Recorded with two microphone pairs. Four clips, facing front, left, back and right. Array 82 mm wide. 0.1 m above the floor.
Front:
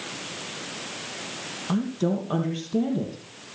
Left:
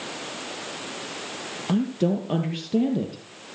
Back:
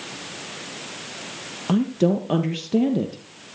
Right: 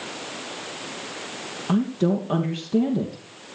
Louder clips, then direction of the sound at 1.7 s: Right 1 dB, back 5 dB; 170° left.